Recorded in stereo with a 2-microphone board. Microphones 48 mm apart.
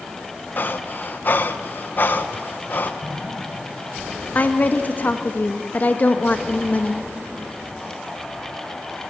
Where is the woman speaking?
35° left (ahead or behind), 1.4 m.